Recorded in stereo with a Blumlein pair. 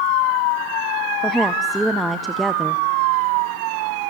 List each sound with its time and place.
1.2 s a woman speaking: 5° right, 0.7 m